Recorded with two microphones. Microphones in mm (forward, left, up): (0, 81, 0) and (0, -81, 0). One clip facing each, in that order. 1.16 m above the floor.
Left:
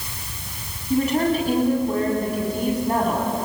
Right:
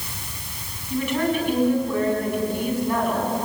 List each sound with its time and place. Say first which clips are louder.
0.9 s a woman speaking: left 3 dB; 40° left (ahead or behind), 8.5 m